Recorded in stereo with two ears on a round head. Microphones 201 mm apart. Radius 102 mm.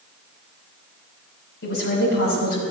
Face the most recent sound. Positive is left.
turn(degrees=65)  # may be behind; listen again after turning